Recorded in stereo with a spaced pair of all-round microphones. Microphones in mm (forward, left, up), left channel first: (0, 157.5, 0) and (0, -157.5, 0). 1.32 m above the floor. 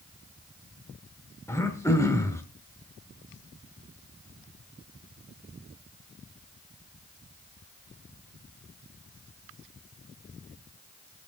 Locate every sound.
1.5 s throat clearing: 10° left (ahead or behind), 1.1 m